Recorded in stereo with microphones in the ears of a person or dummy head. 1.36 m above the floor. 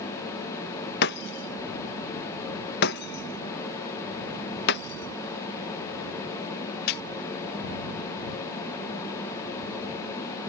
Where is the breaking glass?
50° left (ahead or behind).